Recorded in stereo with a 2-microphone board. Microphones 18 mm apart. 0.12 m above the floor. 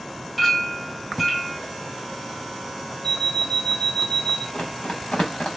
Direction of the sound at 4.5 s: 85° left.